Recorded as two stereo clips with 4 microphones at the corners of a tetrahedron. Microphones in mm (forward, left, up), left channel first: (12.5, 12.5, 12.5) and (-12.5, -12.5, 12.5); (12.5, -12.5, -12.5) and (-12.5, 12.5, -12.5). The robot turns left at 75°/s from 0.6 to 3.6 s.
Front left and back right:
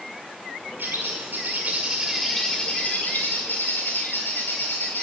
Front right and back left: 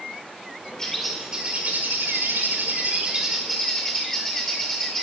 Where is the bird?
115° right, 2 m; by 5.0 s 35° left, 2 m.